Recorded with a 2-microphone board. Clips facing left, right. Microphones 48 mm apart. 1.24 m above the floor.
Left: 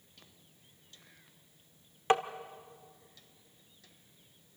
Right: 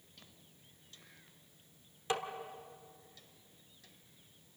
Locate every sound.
2.1 s tapping: 40° left (ahead or behind), 1.1 m